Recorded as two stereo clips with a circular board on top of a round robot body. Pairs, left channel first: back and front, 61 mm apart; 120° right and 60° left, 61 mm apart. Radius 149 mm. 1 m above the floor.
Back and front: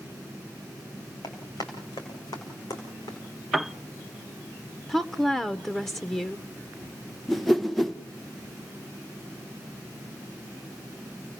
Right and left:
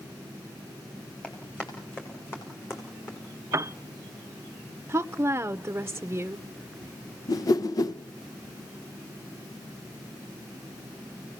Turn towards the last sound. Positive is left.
turn(degrees=-90)